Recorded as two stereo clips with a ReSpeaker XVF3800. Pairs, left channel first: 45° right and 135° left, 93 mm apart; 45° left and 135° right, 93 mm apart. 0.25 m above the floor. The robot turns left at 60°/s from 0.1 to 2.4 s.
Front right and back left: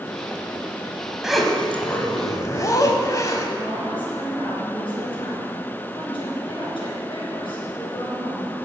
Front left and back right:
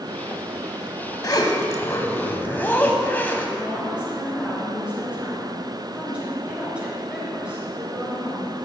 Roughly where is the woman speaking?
Ahead right.